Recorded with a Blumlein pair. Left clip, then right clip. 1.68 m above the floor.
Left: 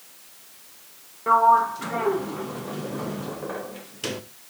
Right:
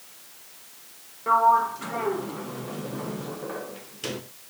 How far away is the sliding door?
About 1.4 m.